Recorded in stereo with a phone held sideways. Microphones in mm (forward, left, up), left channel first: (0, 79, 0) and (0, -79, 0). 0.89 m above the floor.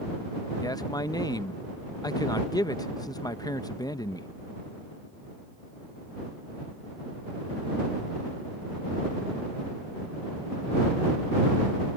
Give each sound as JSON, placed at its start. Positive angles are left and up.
{"t": 0.6, "sound": "a man speaking", "side_deg": 25}